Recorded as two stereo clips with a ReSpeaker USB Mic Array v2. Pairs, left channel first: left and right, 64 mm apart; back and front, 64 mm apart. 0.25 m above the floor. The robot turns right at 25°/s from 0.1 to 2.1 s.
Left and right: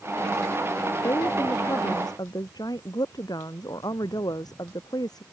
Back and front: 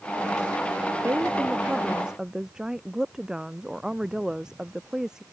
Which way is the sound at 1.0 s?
55° left.